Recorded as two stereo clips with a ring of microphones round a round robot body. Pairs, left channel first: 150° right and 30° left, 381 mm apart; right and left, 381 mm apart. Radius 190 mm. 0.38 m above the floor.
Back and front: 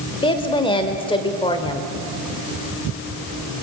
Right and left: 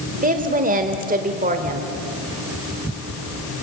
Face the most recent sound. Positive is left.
turn(degrees=140)